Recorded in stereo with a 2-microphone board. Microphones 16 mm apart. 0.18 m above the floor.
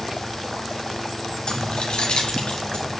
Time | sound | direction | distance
1.5 | keys jangling | 60° left (ahead or behind) | 1.9 m